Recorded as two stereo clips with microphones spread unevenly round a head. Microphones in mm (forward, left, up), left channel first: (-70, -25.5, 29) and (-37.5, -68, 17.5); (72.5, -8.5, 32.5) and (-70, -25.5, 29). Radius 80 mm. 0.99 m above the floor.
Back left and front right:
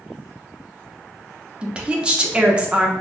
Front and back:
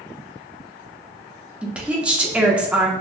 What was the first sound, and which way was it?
A woman speaking, 95° right.